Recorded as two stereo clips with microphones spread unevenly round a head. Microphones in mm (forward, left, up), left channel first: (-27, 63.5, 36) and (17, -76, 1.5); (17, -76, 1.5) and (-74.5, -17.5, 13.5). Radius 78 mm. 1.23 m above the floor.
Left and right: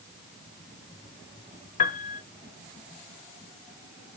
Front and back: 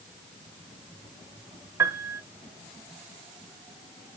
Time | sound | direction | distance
1.8 | a piano | 75° left | 0.6 m